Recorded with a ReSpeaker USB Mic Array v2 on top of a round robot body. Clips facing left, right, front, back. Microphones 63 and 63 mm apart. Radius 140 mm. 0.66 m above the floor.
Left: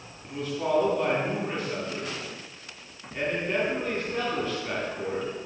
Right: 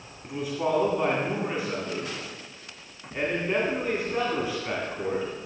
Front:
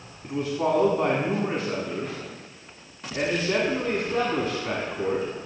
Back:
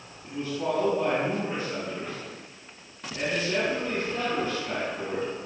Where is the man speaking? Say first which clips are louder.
Right 1 dB, front 4 dB; 10° right, 2 m.